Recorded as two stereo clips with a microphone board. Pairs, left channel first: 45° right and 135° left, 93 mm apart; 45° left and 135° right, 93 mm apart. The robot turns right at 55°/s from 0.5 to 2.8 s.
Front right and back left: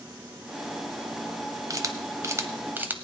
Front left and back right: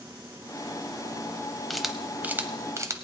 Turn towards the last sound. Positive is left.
turn(degrees=-170)